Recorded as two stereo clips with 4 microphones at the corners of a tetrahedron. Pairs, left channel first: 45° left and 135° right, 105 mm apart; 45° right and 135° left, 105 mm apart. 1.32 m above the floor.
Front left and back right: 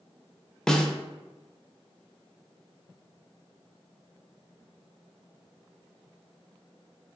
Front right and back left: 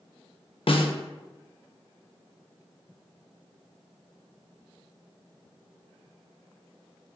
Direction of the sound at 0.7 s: 40° right.